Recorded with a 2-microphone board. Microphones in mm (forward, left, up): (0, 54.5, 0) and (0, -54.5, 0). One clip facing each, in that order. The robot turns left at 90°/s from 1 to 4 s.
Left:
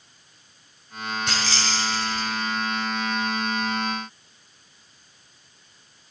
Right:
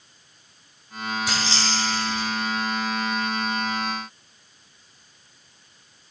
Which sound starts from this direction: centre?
Keys jangling, at 1.3 s.